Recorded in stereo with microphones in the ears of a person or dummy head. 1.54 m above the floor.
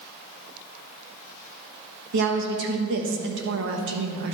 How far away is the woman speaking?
About 1.6 m.